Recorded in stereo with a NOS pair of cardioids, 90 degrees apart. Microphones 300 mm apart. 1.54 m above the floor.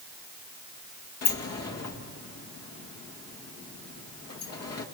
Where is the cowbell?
I don't hear a cowbell.